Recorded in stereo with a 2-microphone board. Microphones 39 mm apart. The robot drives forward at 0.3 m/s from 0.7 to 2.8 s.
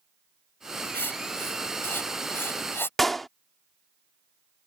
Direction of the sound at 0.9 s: 75° left (ahead or behind).